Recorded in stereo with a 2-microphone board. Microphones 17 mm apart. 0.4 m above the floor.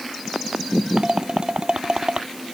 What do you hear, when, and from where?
1.0 s dishes clattering: 55° right (ahead or behind)